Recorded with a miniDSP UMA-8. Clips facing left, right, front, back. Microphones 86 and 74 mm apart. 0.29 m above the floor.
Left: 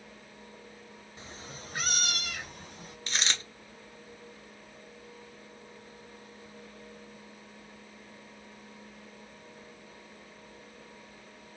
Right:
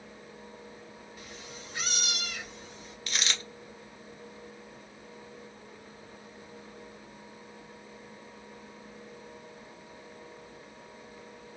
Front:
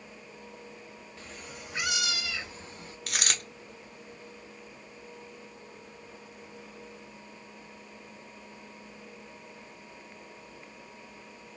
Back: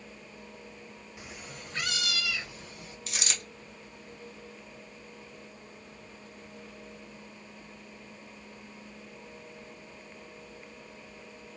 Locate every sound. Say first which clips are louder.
1.2 s a cat meowing: left 3 dB, even; 120° left, 0.6 m; by 3.0 s 55° left, 1.3 m
3.1 s a dropped coin: left 1 dB, front 4 dB; 30° left, 1.1 m